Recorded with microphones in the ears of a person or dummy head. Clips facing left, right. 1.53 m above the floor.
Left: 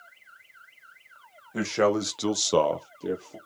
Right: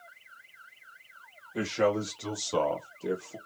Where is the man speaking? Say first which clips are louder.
Left 3 dB; 60° left (ahead or behind), 1.3 m; by 3.4 s 5° left (ahead or behind), 1.0 m.